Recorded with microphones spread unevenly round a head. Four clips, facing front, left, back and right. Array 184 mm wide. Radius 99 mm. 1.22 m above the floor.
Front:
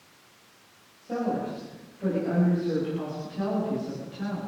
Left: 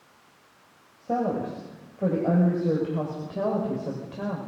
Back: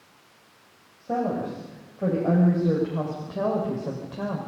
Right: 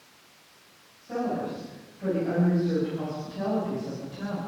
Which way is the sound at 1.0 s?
120° left.